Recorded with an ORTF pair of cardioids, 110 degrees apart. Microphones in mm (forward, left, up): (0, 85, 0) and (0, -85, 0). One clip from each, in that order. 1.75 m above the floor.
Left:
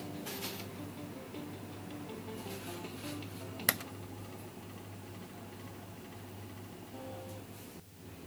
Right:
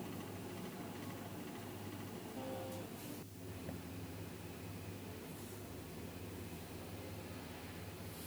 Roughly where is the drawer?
No drawer in this recording.